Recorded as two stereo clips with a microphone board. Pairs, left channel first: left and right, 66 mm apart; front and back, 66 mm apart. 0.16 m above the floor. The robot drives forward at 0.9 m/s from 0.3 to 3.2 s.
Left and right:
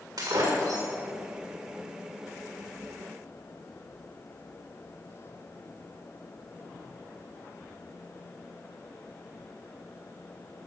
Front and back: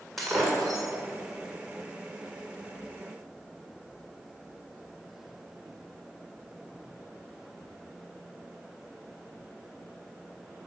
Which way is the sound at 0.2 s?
90° right.